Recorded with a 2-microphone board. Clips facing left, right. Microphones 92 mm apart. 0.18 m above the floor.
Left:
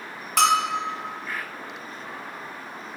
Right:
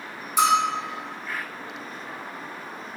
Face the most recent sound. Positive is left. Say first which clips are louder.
# even
turn(degrees=75)  # may be behind; listen again after turning